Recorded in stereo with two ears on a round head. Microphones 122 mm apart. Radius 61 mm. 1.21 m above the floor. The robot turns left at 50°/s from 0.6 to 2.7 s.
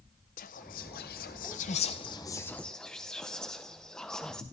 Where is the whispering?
65° left (ahead or behind), 0.5 m; by 4.4 s 5° left (ahead or behind), 0.5 m.